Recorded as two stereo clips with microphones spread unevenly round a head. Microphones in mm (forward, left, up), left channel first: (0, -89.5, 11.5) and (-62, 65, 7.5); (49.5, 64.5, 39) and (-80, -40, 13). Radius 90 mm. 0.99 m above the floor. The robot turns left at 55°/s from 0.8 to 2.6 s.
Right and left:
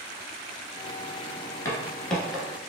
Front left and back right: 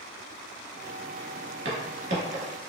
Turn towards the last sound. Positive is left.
turn(degrees=-170)